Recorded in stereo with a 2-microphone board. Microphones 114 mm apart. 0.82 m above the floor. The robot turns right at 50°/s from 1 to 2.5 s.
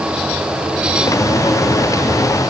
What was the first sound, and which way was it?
Only background noise.